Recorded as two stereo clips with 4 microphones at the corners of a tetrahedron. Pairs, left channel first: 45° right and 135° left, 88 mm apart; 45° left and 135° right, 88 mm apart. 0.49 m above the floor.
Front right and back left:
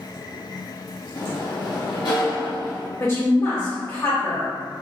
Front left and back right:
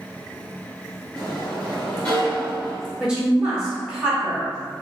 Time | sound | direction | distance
1.1 | a sliding door | 35° right | 1.4 m
3.0 | a woman speaking | 60° right | 1.4 m